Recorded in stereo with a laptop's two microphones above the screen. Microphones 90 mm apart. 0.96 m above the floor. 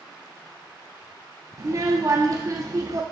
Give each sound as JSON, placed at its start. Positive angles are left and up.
{"t": 1.6, "sound": "a child speaking", "side_deg": -40, "distance_m": 0.7}